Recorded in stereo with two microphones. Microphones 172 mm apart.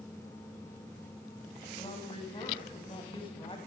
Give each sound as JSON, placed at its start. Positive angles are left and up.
{"t": 1.8, "sound": "a woman speaking", "side_deg": 30, "distance_m": 1.4}